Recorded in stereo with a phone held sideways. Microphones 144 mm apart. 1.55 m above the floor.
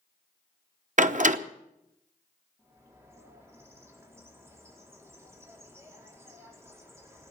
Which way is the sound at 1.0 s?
60° right (ahead or behind).